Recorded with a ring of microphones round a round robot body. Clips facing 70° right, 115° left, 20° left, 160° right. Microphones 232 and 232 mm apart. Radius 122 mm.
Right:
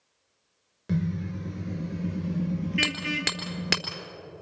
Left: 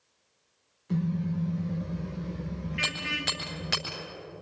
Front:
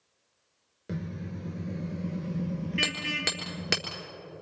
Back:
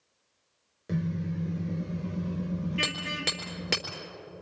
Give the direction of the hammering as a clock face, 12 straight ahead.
2 o'clock.